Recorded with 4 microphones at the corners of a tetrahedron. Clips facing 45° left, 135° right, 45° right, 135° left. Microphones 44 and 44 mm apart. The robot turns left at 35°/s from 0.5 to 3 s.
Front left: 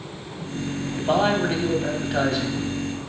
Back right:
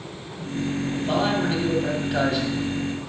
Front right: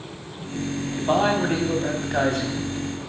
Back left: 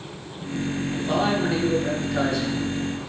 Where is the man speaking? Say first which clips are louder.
Front left 4 dB, front right 3 dB; straight ahead, 2.5 m; by 3.1 s 75° right, 2.5 m.